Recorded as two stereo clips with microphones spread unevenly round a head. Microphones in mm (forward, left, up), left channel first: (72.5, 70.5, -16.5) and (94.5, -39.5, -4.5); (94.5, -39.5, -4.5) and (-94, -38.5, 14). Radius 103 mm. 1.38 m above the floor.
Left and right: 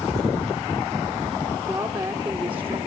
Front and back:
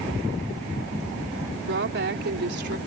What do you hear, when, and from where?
1.7 s a woman speaking: 155° right; by 2.8 s 145° right